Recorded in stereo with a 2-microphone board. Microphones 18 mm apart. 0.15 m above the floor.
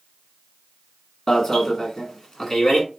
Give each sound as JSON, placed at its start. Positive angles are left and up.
{"t": 1.3, "sound": "an alarm", "side_deg": 35, "distance_m": 1.3}